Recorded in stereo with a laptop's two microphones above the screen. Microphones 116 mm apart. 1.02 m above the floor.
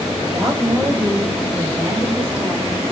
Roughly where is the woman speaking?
Right.